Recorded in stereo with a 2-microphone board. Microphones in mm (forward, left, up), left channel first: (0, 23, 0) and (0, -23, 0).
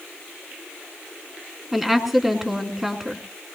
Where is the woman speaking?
5° right (ahead or behind), 2.5 m.